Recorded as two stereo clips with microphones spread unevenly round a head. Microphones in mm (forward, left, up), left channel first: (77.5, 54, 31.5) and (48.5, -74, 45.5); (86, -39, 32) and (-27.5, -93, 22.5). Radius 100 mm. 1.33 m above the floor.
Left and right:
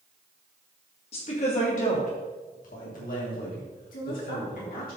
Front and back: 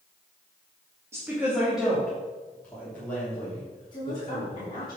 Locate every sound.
1.1 s a woman speaking: 130° left, 2 m; by 4.9 s 95° left, 5 m
3.9 s a woman speaking: 90° left, 3 m